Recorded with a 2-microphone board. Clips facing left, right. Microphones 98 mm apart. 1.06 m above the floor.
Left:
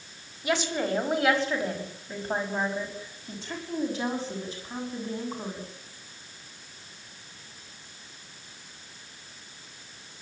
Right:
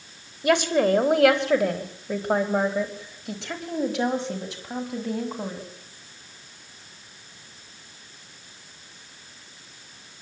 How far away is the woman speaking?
About 3.5 m.